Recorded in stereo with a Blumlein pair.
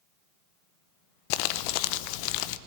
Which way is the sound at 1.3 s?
45° left.